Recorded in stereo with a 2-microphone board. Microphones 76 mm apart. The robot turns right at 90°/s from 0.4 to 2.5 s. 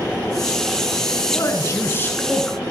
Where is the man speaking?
65° left, 1.4 m; by 2.6 s 175° left, 1.4 m.